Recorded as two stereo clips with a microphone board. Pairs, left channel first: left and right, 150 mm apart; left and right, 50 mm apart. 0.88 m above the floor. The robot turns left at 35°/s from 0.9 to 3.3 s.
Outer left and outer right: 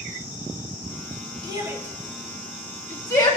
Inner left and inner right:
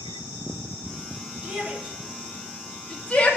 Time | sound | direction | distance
1.4 | a shout | 30° right (ahead or behind) | 1.9 m